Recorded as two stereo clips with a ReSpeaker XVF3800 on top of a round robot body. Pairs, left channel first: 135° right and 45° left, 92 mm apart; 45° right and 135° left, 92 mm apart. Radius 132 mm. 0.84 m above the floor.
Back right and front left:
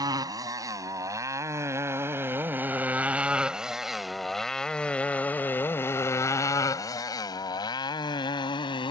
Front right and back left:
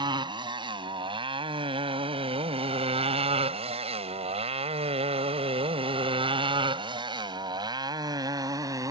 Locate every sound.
0.0 s a motorcycle: 95° left; by 8.9 s 170° right